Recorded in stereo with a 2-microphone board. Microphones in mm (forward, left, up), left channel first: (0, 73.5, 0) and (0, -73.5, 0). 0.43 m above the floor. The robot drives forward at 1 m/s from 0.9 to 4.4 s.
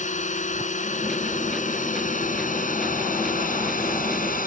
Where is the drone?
55° left (ahead or behind); by 4.5 s 70° left (ahead or behind).